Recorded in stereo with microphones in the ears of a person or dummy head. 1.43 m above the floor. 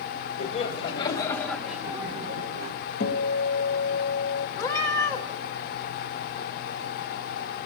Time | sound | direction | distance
0.4 | laughter | 35° left (ahead or behind) | 2 m
3.0 | a guitar | 55° left (ahead or behind) | 1.7 m
4.6 | a cat meowing | 20° left (ahead or behind) | 1.2 m